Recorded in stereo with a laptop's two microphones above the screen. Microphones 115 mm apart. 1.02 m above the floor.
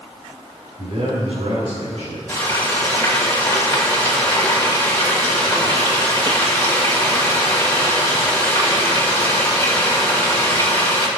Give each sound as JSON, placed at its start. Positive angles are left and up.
{"t": 0.8, "sound": "a man speaking", "side_deg": -75, "distance_m": 3.5}
{"t": 2.3, "sound": "frying", "side_deg": 20, "distance_m": 2.5}